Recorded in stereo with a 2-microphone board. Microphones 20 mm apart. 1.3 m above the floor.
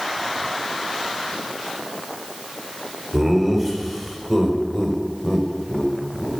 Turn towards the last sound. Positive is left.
turn(degrees=35)  # may be behind; listen again after turning